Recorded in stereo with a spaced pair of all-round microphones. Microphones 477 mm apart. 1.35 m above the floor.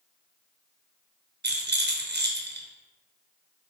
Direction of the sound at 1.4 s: 20° right (ahead or behind).